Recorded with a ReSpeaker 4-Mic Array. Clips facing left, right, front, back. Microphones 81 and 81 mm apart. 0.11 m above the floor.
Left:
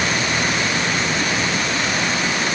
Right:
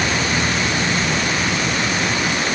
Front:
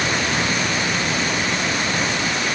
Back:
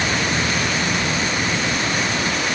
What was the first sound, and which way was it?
Only background noise.